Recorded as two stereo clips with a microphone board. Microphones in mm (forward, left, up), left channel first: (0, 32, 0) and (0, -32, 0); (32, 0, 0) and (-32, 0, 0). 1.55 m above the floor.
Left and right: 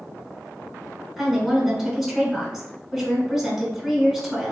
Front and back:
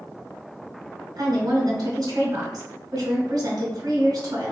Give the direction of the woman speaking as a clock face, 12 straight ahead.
6 o'clock.